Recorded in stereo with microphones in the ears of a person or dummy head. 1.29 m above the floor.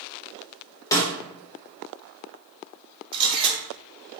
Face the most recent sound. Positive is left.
turn(degrees=-30)  # may be behind; listen again after turning